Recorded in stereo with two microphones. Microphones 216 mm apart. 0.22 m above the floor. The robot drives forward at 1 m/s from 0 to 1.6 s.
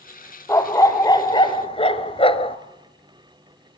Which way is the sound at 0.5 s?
15° left (ahead or behind).